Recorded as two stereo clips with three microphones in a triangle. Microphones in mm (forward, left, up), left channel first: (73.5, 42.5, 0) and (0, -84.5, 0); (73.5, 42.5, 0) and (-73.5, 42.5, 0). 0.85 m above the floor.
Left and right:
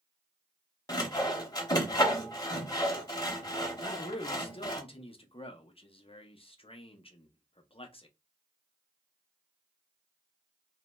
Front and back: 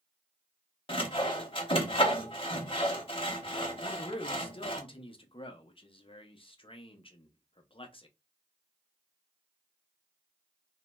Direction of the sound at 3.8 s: 30° left.